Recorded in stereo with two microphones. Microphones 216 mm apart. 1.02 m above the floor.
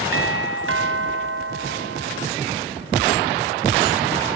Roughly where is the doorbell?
Right.